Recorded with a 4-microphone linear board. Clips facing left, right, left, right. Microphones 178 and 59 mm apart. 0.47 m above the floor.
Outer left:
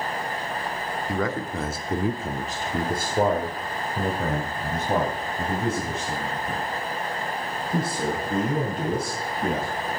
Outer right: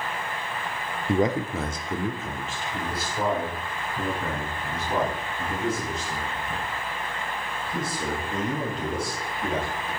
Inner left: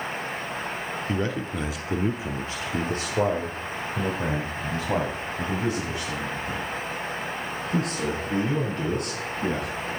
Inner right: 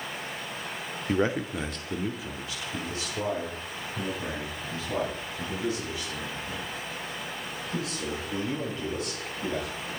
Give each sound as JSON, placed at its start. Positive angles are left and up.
{"t": 1.1, "sound": "a man speaking", "side_deg": -30, "distance_m": 0.9}